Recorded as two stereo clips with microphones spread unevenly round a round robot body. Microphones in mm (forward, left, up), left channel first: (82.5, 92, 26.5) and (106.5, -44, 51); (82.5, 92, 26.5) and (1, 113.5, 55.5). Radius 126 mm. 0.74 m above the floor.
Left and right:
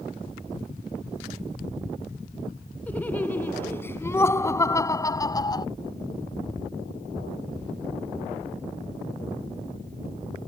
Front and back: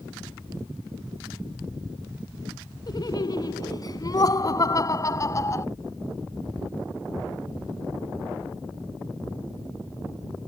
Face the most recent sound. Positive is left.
turn(degrees=40)